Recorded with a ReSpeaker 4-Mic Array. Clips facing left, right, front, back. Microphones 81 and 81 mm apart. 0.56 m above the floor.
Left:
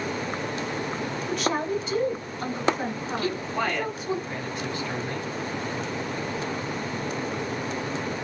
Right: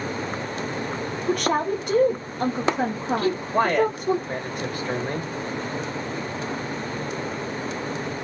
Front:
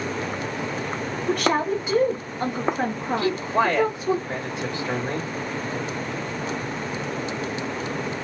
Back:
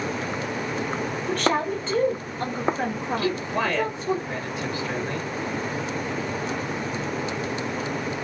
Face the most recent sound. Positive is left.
turn(degrees=-60)